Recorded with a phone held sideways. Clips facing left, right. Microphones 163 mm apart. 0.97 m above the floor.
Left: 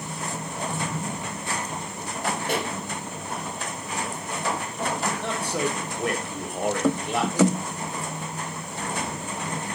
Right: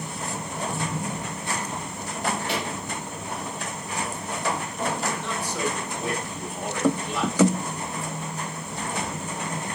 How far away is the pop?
About 4.5 m.